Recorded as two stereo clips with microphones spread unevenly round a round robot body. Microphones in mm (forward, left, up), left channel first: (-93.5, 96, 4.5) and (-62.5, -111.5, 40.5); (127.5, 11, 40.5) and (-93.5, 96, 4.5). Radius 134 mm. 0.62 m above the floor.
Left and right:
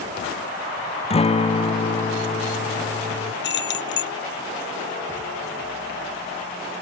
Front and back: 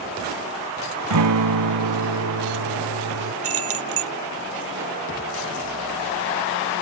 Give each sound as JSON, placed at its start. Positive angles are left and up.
{"t": 1.1, "sound": "a guitar", "azimuth_deg": 160}
{"t": 3.4, "sound": "keys jangling", "azimuth_deg": 135}